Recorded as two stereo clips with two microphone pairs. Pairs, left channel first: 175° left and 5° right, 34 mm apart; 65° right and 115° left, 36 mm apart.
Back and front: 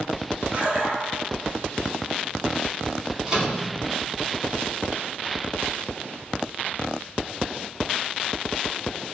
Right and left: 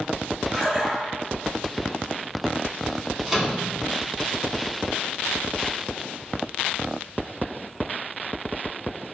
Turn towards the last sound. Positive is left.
turn(degrees=25)